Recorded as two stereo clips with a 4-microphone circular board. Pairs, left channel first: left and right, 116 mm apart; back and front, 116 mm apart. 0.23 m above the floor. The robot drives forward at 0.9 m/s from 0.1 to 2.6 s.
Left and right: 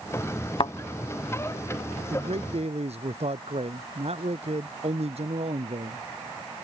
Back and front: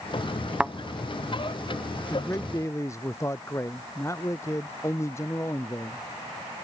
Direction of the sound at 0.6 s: 80° left.